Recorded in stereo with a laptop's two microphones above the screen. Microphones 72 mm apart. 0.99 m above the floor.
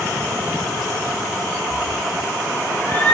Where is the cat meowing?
15° right (ahead or behind), 0.9 m; by 3.1 s 40° left (ahead or behind), 0.9 m.